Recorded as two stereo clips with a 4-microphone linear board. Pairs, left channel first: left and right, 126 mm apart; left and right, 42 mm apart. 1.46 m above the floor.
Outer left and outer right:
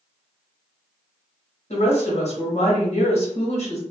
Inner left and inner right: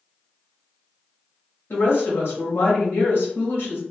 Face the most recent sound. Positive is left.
turn(degrees=55)  # may be behind; listen again after turning